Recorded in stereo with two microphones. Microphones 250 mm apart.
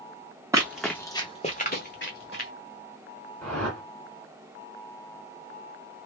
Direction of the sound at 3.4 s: 5° left (ahead or behind).